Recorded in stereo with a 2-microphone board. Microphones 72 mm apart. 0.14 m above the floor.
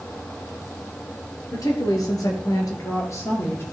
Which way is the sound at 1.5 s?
55° left (ahead or behind).